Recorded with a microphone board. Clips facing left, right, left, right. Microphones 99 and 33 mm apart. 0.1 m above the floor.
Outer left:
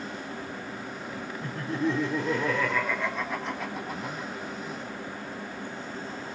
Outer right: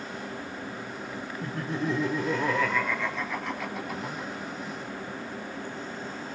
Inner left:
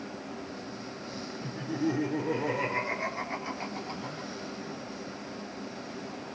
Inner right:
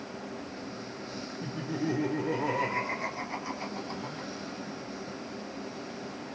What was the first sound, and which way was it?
Laughter, 30° right (ahead or behind).